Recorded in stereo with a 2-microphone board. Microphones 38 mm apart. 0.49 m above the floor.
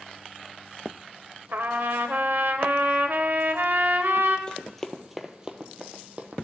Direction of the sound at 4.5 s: 25° left (ahead or behind).